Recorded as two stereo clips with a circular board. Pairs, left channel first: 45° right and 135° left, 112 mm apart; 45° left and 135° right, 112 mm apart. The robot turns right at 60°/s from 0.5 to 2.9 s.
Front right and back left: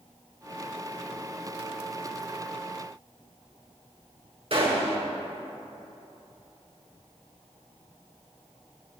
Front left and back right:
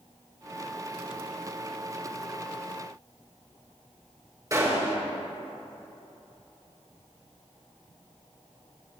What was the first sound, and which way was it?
A gunshot, 165° left.